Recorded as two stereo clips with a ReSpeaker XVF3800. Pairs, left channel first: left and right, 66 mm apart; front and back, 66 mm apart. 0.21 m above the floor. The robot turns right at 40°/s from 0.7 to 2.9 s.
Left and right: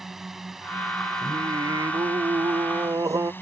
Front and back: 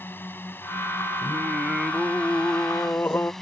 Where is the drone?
10° right; by 3.4 s 80° left.